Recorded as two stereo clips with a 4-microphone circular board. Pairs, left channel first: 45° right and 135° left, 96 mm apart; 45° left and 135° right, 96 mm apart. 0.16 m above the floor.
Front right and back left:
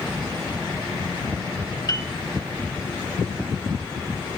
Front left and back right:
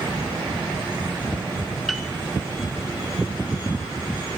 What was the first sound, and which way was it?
A piano, 45° right.